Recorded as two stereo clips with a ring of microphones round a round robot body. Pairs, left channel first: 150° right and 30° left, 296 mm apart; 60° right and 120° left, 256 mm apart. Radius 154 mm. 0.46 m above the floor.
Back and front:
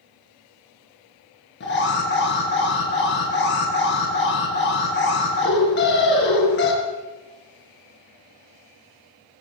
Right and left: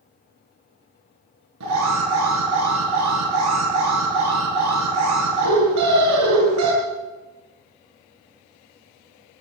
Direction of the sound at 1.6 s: 155° left.